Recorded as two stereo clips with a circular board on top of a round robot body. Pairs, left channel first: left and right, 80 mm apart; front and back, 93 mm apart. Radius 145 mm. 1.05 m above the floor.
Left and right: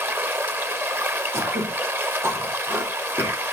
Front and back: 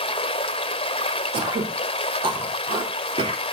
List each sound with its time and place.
0.0 s running water: 25° right, 1.1 m
1.3 s throat clearing: 150° right, 3 m